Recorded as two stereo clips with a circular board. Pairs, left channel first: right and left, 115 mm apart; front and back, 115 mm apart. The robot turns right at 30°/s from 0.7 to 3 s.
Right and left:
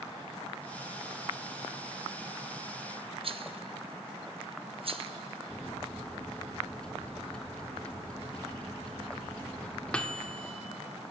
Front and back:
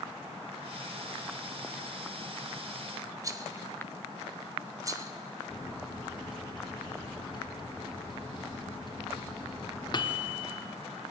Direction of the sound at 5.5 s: 15° right.